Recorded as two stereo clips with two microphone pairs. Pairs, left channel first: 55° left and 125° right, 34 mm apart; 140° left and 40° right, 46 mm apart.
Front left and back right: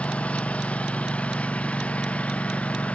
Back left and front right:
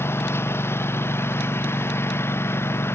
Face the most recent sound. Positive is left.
turn(degrees=105)